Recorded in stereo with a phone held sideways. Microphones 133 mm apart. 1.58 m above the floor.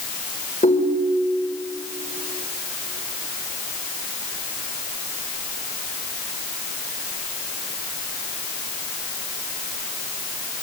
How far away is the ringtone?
About 3 m.